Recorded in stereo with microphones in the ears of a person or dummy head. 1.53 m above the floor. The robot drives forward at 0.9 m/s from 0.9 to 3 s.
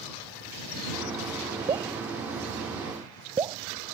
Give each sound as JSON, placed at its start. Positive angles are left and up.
{"t": 1.7, "sound": "dripping", "side_deg": -20}